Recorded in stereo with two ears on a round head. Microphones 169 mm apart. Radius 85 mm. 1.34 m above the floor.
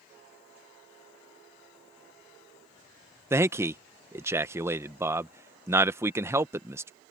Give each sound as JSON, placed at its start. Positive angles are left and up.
{"t": 3.3, "sound": "a man speaking", "side_deg": -15}